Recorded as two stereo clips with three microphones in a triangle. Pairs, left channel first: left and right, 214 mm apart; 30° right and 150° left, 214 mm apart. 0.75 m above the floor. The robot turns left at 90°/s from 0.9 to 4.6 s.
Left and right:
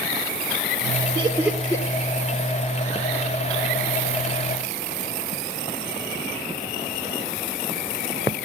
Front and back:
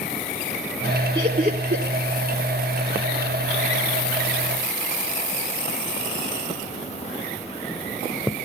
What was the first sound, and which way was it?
Laughter, 145° right.